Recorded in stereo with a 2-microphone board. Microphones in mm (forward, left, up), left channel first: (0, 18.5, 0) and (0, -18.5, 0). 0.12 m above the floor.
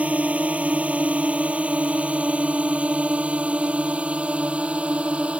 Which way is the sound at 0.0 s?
40° right (ahead or behind).